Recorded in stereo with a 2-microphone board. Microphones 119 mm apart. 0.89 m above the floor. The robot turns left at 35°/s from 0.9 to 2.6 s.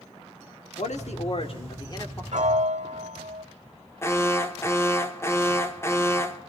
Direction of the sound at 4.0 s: 20° left (ahead or behind).